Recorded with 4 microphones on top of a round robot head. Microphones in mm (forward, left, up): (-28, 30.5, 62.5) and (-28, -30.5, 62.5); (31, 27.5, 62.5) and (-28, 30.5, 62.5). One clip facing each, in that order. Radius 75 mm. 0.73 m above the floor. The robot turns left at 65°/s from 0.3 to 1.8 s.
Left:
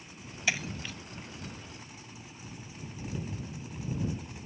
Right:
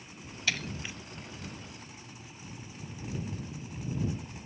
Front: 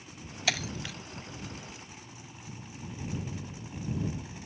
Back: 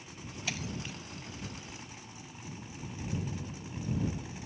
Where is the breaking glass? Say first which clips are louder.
Left 1 dB, front 6 dB; 10° left; by 0.9 s 20° right.